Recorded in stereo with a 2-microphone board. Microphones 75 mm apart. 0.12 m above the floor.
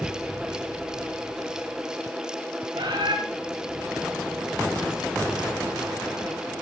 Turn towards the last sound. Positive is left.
turn(degrees=-75)  # may be behind; listen again after turning